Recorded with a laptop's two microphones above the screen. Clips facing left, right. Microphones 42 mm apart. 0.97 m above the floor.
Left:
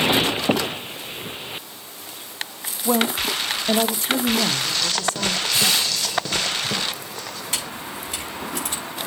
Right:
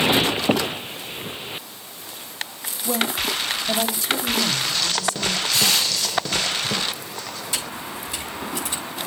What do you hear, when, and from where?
2.9 s a woman speaking: 30° left (ahead or behind), 0.6 m; by 5.4 s 45° left (ahead or behind), 1.7 m
5.5 s crushing: 35° left (ahead or behind), 2.5 m
7.5 s a camera shutter: 55° left (ahead or behind), 6 m